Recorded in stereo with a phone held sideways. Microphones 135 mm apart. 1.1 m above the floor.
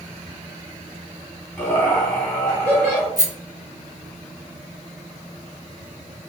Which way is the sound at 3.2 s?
25° left (ahead or behind).